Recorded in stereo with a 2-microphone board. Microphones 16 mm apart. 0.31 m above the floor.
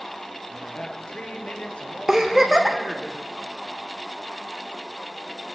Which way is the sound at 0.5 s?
75° left (ahead or behind).